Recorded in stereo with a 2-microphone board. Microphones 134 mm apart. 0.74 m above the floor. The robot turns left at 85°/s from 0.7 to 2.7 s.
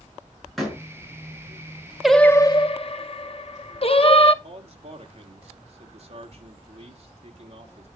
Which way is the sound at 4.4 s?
55° right (ahead or behind).